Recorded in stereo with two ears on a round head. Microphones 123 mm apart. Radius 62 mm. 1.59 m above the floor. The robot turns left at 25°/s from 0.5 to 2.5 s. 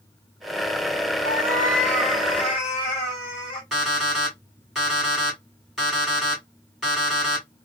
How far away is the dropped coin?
I don't hear a dropped coin.